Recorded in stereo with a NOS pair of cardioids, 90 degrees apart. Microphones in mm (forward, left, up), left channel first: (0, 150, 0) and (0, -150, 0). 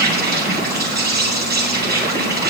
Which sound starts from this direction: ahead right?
An insect, at 0.0 s.